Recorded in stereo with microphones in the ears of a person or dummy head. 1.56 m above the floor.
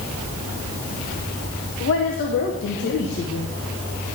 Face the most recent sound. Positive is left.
turn(degrees=55)  # may be behind; listen again after turning